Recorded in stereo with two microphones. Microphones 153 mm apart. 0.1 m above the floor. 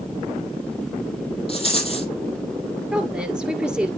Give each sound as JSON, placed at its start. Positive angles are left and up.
{"t": 1.5, "sound": "a rattle", "side_deg": 40, "distance_m": 2.0}
{"t": 2.9, "sound": "a woman speaking", "side_deg": -5, "distance_m": 1.6}